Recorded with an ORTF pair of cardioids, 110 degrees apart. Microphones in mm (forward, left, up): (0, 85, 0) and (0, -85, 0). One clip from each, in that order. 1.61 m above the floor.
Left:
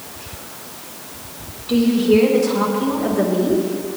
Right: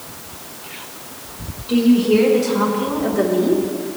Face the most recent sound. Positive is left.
turn(degrees=-15)